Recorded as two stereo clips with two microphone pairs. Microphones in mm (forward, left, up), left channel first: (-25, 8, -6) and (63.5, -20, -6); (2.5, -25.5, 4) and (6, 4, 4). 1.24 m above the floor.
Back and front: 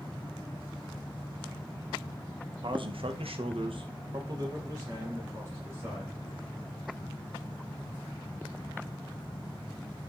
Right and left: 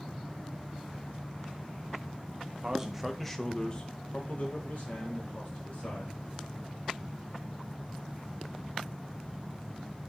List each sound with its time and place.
2.6 s a man speaking: 15° left, 0.8 m; by 6.2 s 85° right, 1.8 m